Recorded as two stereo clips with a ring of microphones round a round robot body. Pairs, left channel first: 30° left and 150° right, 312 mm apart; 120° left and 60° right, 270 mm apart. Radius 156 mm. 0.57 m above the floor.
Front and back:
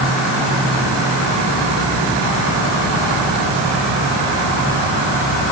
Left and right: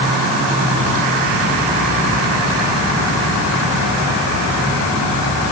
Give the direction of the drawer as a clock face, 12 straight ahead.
No drawer in this recording.